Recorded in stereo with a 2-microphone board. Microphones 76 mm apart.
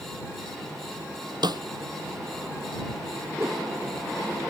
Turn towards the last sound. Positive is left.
turn(degrees=-35)  # may be behind; listen again after turning